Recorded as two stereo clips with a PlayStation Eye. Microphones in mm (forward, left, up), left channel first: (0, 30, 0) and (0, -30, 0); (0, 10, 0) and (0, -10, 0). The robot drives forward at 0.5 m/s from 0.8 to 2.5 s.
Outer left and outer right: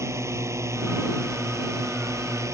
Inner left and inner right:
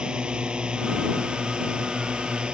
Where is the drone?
50° right (ahead or behind); by 2.5 s 55° right (ahead or behind).